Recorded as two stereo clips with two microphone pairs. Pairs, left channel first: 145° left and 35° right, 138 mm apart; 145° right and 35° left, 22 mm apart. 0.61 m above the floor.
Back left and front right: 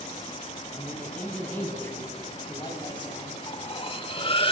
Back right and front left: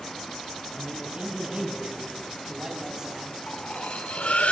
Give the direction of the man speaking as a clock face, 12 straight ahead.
10 o'clock.